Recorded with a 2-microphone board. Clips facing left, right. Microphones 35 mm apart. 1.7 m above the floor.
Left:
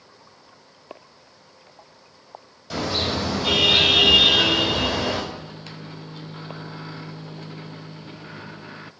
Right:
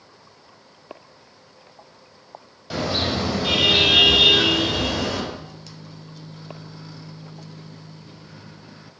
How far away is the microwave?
About 0.6 m.